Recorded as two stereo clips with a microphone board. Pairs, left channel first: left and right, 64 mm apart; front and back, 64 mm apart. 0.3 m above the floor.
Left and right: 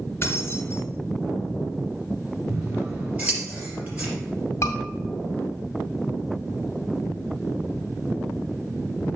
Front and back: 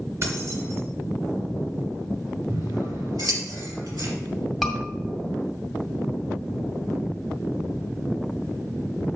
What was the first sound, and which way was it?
Keys jangling, 140° left.